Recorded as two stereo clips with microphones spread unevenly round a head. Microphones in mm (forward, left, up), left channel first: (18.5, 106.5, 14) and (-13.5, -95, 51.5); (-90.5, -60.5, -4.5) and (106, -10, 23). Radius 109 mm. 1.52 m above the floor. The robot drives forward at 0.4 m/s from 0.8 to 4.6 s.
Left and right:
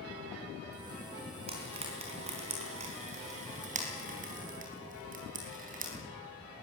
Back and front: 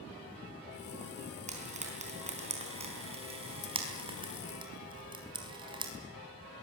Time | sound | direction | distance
1.5 | frying | 40° right | 5 m